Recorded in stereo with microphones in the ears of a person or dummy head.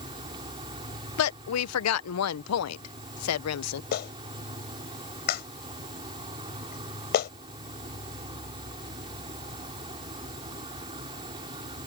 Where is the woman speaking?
80° left.